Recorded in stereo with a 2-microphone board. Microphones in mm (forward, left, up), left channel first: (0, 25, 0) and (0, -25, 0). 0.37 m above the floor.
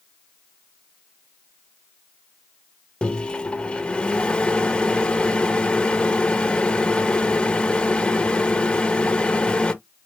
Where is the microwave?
20° left (ahead or behind), 0.7 m.